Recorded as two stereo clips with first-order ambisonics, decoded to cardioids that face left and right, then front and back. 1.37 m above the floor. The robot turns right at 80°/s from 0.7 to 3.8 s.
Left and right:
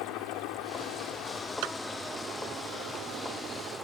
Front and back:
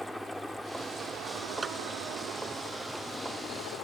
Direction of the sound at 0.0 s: 85° left.